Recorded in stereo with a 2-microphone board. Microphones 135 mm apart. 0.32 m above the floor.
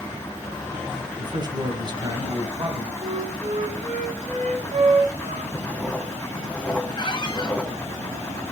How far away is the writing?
About 0.8 m.